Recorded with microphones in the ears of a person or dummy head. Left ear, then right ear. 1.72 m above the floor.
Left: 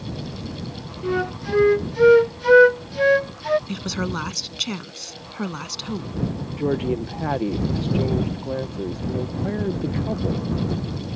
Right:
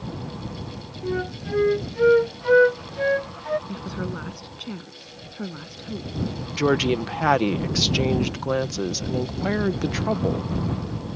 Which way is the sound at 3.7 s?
40° left (ahead or behind).